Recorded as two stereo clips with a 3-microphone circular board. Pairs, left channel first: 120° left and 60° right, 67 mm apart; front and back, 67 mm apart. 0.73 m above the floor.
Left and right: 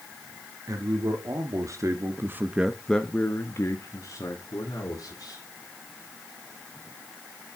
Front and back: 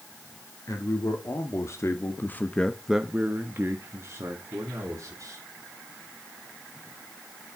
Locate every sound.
0.7 s a man speaking: 40° right, 1.9 m; by 5.4 s 140° left, 2.5 m